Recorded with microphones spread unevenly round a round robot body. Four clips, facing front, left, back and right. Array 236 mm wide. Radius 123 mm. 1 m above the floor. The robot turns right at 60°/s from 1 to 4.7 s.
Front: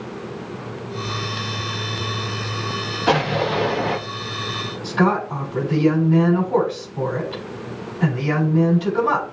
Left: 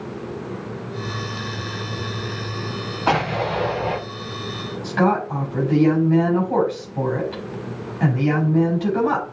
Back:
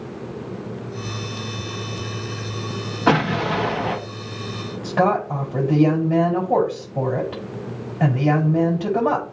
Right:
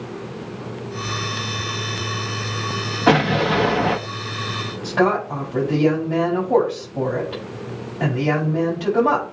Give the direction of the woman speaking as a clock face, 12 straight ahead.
5 o'clock.